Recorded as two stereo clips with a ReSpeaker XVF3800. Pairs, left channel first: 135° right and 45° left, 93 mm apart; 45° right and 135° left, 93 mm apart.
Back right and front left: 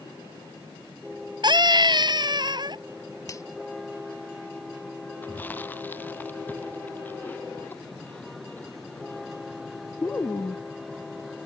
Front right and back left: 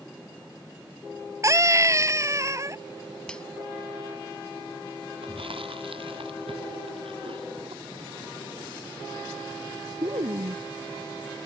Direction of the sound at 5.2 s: 155° left.